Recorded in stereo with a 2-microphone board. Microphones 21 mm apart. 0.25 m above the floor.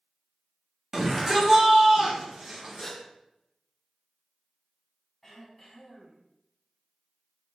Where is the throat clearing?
5° left (ahead or behind), 1.7 m.